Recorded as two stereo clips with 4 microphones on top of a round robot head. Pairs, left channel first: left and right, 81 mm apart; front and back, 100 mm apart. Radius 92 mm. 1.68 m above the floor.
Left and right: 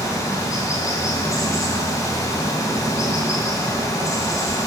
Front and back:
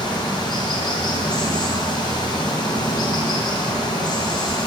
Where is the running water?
45° left, 2.5 m.